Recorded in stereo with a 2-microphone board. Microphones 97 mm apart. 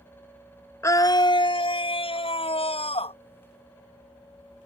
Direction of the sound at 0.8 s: 30° left (ahead or behind).